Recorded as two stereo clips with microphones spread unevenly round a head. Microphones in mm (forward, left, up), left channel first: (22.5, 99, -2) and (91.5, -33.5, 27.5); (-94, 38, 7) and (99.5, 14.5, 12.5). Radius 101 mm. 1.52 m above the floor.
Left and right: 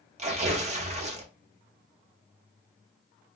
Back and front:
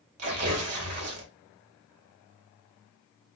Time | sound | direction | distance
0.2 | tearing paper | 15° right | 0.9 m